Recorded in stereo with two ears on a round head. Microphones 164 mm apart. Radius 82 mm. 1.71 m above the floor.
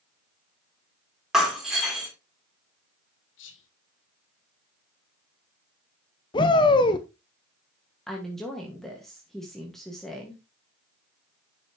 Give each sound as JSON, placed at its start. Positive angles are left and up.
{"t": 1.3, "sound": "breaking glass", "side_deg": -5, "distance_m": 3.0}
{"t": 3.4, "sound": "whispering", "side_deg": 75, "distance_m": 1.5}
{"t": 6.3, "sound": "a shout", "side_deg": 25, "distance_m": 0.8}
{"t": 8.1, "sound": "a woman speaking", "side_deg": 0, "distance_m": 1.7}